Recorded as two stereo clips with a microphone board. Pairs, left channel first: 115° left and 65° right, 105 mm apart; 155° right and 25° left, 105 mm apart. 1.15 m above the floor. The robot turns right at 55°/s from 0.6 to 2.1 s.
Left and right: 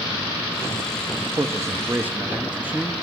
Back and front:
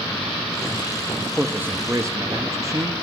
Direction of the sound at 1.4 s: 45° right.